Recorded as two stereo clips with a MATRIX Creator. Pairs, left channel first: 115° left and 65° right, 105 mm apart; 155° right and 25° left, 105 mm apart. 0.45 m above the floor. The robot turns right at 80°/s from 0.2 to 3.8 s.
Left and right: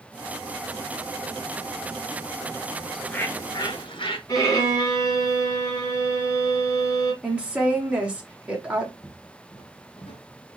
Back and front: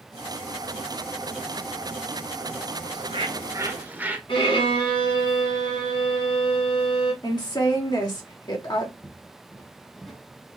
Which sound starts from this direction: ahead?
A bird, at 2.9 s.